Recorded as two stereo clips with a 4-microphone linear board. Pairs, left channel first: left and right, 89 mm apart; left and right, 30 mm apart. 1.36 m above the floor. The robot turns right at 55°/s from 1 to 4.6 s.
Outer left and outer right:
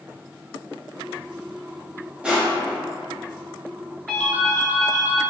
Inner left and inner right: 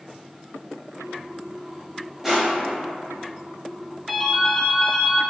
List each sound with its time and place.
2.2 s crushing: 15° right (ahead or behind), 1.2 m; by 2.8 s 15° left (ahead or behind), 1.2 m
4.1 s a ringtone: 5° left (ahead or behind), 0.9 m; by 5.2 s 30° left (ahead or behind), 0.9 m